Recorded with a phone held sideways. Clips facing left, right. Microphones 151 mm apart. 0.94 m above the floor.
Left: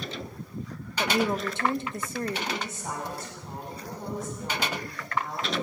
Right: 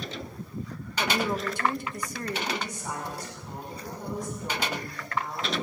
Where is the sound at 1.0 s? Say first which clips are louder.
Left 2 dB; 25° left (ahead or behind), 1.1 m.